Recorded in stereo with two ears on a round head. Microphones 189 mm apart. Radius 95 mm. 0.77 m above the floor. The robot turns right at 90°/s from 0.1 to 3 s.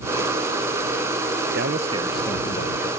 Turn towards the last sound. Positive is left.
turn(degrees=75)